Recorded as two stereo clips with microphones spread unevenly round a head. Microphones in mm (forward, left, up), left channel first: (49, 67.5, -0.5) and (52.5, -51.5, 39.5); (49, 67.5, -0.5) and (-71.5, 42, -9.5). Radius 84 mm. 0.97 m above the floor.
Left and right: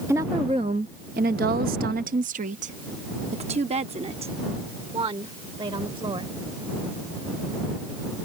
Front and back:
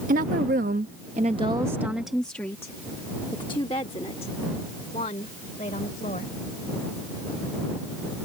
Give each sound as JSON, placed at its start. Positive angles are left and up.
{"t": 0.1, "sound": "a woman speaking", "azimuth_deg": -165}